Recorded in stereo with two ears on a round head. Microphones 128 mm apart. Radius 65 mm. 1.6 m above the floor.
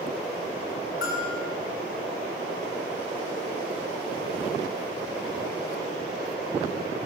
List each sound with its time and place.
1.0 s a bell: 75° left (ahead or behind), 4 m